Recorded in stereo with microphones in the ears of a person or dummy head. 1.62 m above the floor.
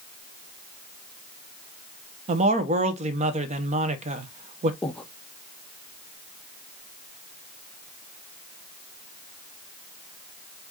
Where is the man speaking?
40° right (ahead or behind), 0.8 m.